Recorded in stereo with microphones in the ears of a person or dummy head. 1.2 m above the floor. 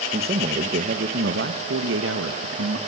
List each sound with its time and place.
0.1 s a man speaking: 30° right (ahead or behind), 1.8 m; by 2.8 s 75° right (ahead or behind), 2 m